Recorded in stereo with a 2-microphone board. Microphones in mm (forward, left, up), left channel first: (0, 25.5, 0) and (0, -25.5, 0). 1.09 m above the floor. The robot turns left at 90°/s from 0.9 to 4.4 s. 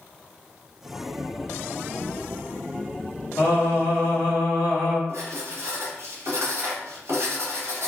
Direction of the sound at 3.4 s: 120° left.